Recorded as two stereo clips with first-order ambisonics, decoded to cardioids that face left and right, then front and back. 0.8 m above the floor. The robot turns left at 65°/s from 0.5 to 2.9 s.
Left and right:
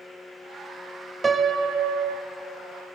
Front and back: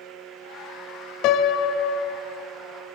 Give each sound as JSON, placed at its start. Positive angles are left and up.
{"t": 1.2, "sound": "a piano", "azimuth_deg": -15, "distance_m": 0.5}